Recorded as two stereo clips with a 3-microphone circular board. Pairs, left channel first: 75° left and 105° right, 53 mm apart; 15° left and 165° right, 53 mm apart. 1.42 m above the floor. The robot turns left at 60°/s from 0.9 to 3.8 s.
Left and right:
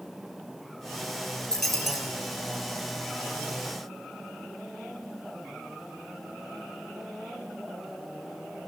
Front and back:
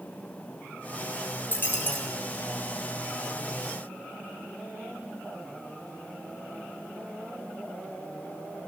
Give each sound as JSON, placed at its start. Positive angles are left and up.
{"t": 1.5, "sound": "a dropped coin", "azimuth_deg": 0, "distance_m": 1.7}